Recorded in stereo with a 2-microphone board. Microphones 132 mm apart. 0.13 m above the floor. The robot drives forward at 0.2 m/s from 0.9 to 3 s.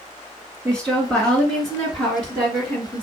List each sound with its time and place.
0.7 s a woman speaking: 5° left (ahead or behind), 2 m